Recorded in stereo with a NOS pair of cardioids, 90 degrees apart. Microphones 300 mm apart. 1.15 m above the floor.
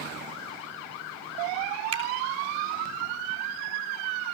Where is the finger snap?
55° right, 3.5 m.